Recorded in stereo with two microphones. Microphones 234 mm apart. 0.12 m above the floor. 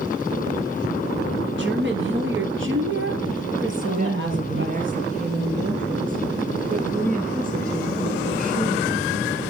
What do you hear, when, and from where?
1.6 s a woman speaking: 50° right (ahead or behind), 2.5 m; by 4.9 s 55° right (ahead or behind), 3.5 m
3.9 s a woman speaking: 35° right (ahead or behind), 1.8 m